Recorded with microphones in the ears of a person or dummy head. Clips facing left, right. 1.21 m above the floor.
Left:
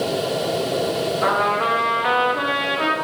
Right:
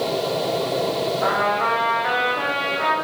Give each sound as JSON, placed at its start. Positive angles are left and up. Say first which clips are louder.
{"t": 1.2, "sound": "a trumpet", "louder": "left 1 dB", "side_deg": 50, "distance_m": 0.7}